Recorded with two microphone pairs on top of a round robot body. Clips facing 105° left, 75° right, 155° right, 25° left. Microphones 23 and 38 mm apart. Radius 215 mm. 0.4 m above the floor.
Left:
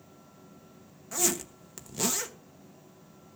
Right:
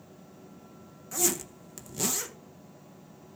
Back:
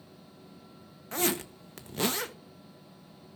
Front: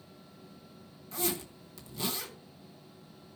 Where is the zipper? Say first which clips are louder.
Even, back 5 dB; 175° right, 1.2 m.